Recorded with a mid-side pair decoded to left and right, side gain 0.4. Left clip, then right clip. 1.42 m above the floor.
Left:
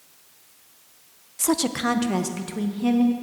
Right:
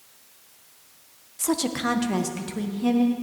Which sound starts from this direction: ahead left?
A woman speaking, at 1.4 s.